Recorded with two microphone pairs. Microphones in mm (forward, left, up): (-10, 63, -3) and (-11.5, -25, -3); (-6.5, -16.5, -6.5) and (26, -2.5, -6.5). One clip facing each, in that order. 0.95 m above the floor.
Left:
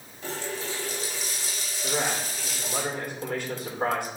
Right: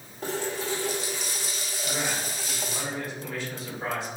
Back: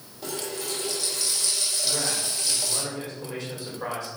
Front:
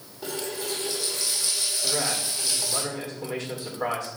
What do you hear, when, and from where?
0.2 s a running tap: 55° right, 2.5 m
1.8 s a man speaking: 55° left, 3 m